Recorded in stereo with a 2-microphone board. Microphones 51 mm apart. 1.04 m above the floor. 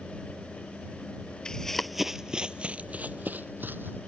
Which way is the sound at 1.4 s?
15° left (ahead or behind).